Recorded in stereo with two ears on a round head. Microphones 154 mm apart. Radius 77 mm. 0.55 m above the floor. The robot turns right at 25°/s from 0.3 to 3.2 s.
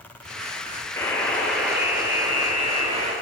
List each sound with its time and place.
1.0 s a buzzer: 165° left, 9.5 m; by 3.1 s 140° right, 9.5 m